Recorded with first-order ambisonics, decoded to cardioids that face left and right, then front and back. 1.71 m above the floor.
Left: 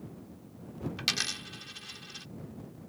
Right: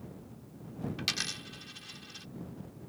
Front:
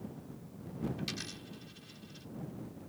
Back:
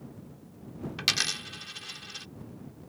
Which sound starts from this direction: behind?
A dropped coin, at 1.0 s.